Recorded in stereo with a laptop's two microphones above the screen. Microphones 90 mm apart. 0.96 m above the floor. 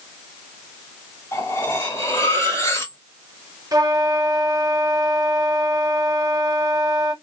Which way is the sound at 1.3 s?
35° left (ahead or behind).